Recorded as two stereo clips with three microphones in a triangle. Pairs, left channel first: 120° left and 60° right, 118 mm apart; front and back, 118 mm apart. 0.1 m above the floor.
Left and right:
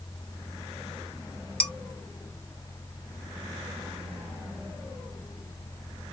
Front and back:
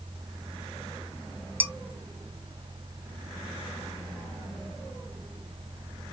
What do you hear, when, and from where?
1.6 s dishes clattering: 175° left, 0.8 m